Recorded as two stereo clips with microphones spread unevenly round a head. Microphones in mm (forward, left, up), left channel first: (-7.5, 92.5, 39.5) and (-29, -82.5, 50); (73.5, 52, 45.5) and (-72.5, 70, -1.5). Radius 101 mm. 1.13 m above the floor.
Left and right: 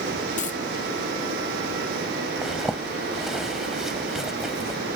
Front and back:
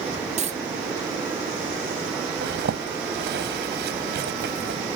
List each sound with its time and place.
0.4 s a dropped coin: 130° left
2.4 s a zipper: 175° left